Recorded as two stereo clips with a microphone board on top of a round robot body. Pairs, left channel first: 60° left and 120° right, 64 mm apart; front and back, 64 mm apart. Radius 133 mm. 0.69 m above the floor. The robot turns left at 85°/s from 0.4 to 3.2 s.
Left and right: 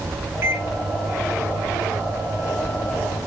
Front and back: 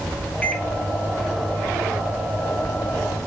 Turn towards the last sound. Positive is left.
turn(degrees=55)